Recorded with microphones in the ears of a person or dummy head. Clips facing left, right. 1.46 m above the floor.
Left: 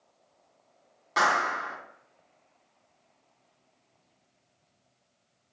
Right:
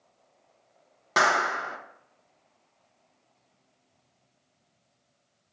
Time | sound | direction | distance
1.2 | a clap | 60° right (ahead or behind) | 1.1 m